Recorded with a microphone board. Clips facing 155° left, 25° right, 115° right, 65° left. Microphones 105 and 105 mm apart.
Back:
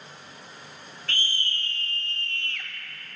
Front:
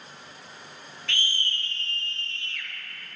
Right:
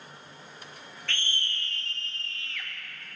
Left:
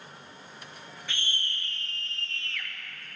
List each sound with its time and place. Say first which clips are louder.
1.1 s a scream: even, right 2 dB; 140° left, 1.8 m; by 2.7 s 165° left, 2.5 m